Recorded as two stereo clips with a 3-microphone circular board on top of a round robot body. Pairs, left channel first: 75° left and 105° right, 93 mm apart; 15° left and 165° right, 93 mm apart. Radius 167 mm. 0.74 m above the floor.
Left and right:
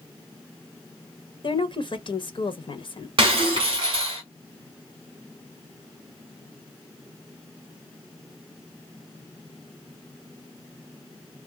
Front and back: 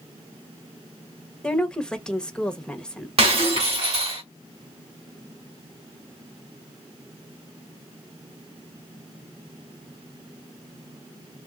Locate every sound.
1.4 s a woman speaking: 95° left, 1.0 m
3.2 s breaking glass: 145° right, 1.6 m